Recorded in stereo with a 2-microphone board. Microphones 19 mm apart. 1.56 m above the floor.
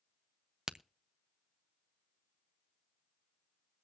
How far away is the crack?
About 0.5 m.